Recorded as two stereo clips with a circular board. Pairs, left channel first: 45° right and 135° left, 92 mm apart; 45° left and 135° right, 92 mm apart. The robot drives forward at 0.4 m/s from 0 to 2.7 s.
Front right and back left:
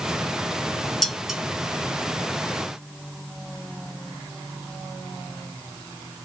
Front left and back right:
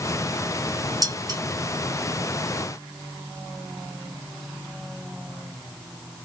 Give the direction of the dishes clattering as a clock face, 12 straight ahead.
4 o'clock.